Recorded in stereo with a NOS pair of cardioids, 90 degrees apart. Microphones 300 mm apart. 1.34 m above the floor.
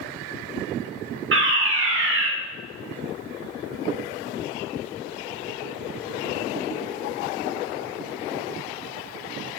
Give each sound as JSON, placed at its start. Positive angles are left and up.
{"t": 1.3, "sound": "a fire alarm", "azimuth_deg": -40, "distance_m": 5.5}